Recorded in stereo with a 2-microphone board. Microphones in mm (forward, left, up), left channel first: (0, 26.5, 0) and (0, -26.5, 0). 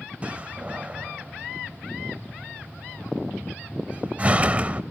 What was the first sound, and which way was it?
A door slam, 30° right (ahead or behind).